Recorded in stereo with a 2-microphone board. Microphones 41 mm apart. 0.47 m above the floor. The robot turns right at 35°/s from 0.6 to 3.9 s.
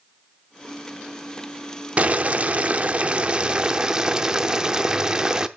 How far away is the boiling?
About 0.7 m.